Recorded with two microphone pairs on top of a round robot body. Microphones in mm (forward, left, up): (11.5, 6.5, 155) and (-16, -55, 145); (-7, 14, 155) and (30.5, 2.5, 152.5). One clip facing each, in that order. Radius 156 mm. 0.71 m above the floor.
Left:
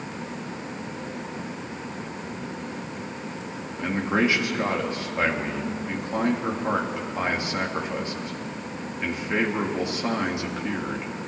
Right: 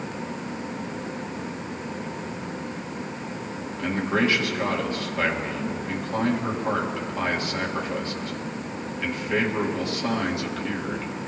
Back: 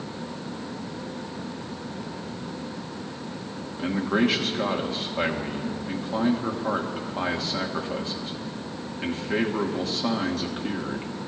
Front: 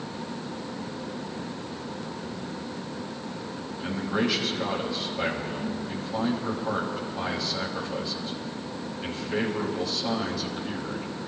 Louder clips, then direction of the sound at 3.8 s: Even, back 4 dB; 140° left.